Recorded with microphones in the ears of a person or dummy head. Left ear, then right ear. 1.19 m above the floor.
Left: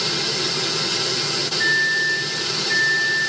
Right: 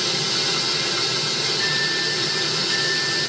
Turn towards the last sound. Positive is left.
turn(degrees=80)